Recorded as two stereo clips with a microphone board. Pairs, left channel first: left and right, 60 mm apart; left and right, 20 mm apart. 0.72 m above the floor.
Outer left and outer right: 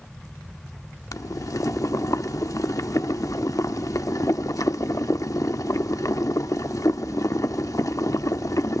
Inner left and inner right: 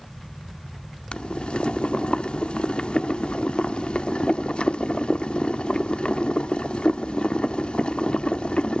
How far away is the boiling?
About 0.7 m.